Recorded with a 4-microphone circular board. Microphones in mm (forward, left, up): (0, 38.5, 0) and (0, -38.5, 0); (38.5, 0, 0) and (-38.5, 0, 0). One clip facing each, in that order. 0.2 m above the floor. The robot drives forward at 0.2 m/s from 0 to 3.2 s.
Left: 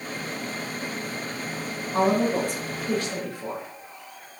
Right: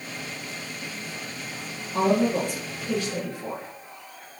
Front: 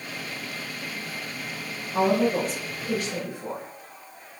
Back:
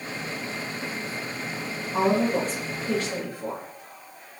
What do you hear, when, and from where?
1.9 s a woman speaking: 135° left, 2.5 m; by 3.6 s 140° left, 3 m